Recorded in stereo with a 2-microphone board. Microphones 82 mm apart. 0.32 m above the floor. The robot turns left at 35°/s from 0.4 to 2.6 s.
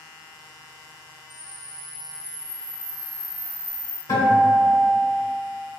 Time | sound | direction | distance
1.3 | a camera shutter | 70° right | 0.6 m
4.1 | a guitar | 60° left (ahead or behind) | 1.5 m